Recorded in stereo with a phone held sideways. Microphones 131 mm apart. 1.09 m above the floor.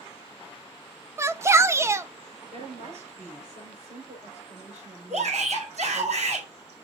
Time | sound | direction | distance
1.2 | a shout | 20° right (ahead or behind) | 0.6 m
2.5 | a woman speaking | 65° right (ahead or behind) | 4.5 m
5.1 | a shout | 70° right (ahead or behind) | 4 m